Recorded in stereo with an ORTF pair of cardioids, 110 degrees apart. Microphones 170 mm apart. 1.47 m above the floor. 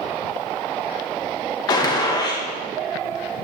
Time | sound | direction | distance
1.7 | a gunshot | 25° left | 1.9 m